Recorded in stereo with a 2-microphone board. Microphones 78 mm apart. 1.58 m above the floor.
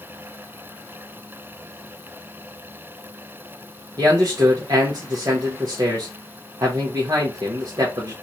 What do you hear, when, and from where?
4.0 s a man speaking: 50° right (ahead or behind), 1.0 m